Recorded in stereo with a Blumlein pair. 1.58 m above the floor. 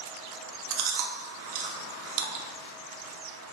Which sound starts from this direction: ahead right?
Chewing, at 0.7 s.